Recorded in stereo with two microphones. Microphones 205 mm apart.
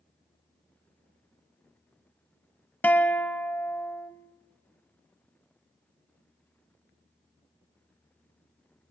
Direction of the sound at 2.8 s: 10° left (ahead or behind).